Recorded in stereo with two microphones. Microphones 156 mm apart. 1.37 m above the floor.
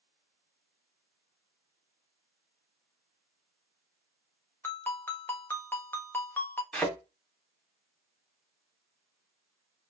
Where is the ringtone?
15° left (ahead or behind), 1.2 m.